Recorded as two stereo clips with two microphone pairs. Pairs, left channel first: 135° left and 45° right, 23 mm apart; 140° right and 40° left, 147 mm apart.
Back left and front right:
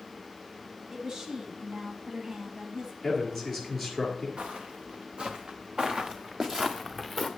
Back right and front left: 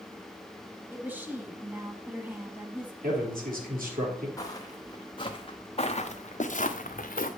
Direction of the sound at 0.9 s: 25° right.